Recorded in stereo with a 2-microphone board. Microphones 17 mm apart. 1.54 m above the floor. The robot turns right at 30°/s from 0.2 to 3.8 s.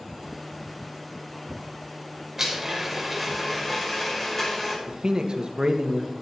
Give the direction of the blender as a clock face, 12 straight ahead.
1 o'clock.